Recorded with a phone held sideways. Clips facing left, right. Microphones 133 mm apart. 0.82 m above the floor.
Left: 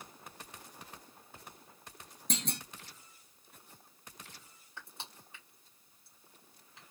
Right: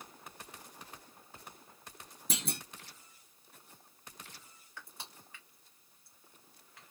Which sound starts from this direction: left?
Crushing, at 4.8 s.